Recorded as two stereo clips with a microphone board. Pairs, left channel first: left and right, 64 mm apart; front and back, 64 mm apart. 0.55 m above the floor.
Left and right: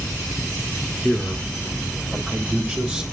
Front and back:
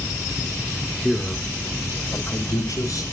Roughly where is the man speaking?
Behind.